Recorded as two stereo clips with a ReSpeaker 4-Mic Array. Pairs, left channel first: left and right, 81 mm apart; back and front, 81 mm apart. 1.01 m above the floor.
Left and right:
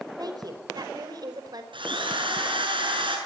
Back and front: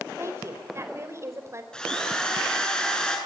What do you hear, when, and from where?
0.2 s a woman speaking: 55° right, 4.5 m
1.7 s a drill: 100° right, 7.5 m